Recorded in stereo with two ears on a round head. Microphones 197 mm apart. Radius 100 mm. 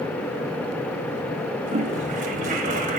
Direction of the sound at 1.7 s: 35° right (ahead or behind).